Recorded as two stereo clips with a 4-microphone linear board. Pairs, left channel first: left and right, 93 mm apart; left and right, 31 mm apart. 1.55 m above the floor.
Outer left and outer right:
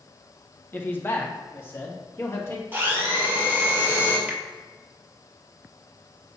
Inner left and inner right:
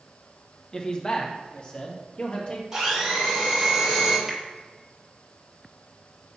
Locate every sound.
0.7 s a man speaking: 25° left (ahead or behind), 1.2 m
2.7 s a blender: 25° right (ahead or behind), 2.5 m
4.3 s a finger snap: 15° right (ahead or behind), 1.1 m